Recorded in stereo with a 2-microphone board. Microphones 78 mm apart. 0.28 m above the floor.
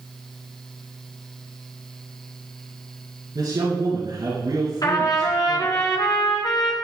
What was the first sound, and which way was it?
A man speaking, 55° right (ahead or behind).